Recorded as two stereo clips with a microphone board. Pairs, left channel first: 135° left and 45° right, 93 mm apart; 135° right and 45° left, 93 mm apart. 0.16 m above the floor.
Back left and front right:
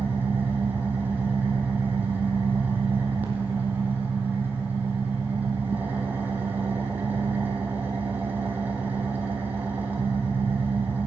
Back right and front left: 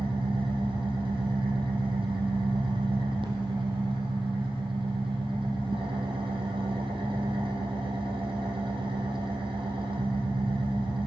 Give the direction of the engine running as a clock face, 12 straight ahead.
11 o'clock.